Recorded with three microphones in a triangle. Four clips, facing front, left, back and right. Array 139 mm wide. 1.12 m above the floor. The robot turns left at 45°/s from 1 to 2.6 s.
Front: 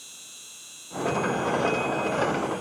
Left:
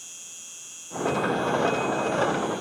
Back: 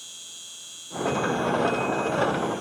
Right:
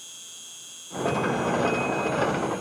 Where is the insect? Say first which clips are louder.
Right 1 dB, back 2 dB; 140° left; by 2.6 s 70° left.